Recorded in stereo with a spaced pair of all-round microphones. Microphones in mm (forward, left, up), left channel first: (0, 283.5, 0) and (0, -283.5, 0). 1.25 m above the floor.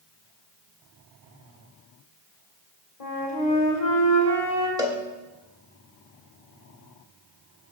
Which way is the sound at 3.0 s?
75° left (ahead or behind).